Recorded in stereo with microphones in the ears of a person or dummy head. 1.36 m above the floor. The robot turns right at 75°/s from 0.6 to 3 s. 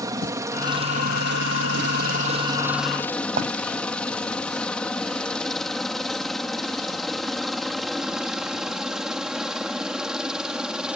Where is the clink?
50° right (ahead or behind).